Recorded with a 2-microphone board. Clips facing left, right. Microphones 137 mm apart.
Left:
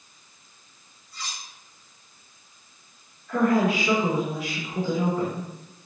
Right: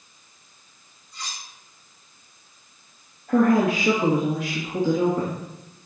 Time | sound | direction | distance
1.1 | cutlery clinking | 20° right (ahead or behind) | 4 m
3.3 | a woman speaking | 60° right (ahead or behind) | 3.5 m